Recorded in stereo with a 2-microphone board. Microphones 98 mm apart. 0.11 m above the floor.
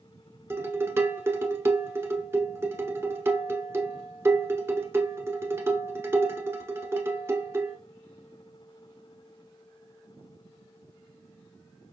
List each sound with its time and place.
0.5 s dishes clattering: 25° right (ahead or behind), 0.8 m